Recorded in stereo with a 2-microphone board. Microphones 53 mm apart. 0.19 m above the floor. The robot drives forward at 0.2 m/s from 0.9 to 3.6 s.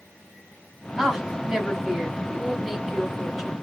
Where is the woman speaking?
5° right (ahead or behind), 1.0 m.